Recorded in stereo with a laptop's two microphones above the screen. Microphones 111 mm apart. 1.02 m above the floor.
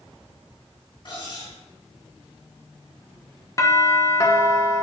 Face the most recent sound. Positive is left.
turn(degrees=25)  # may be behind; listen again after turning